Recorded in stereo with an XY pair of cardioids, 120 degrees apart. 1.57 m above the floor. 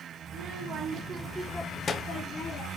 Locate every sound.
0.3 s a child speaking: 65° right, 1.1 m; by 2.7 s 70° left, 1.0 m